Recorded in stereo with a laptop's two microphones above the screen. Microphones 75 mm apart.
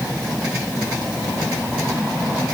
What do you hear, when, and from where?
Only background noise.